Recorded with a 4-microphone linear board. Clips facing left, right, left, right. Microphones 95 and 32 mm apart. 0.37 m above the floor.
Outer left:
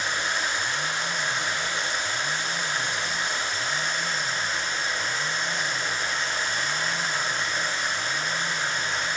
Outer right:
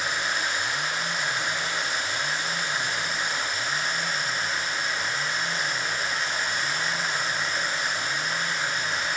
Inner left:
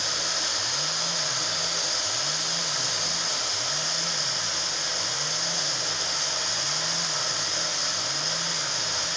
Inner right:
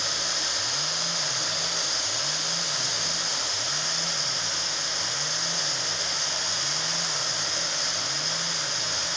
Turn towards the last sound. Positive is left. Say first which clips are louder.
# even, even
turn(degrees=-5)  # may be behind; listen again after turning